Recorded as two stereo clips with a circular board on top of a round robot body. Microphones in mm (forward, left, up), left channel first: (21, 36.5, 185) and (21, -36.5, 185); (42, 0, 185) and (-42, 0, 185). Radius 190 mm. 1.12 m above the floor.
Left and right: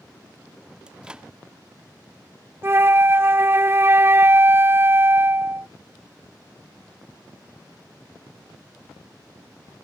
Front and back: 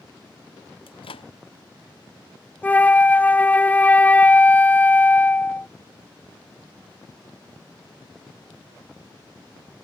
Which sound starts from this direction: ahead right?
A flute, at 2.6 s.